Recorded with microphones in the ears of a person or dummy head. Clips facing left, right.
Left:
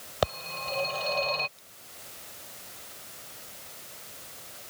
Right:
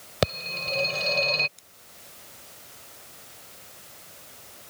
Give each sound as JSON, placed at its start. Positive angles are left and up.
{"t": 0.2, "sound": "a phone ringing", "side_deg": -35}
{"t": 1.6, "sound": "scissors", "side_deg": -40}